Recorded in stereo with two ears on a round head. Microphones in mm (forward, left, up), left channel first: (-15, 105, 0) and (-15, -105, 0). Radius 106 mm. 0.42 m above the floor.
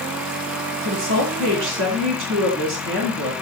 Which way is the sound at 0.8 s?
55° right (ahead or behind).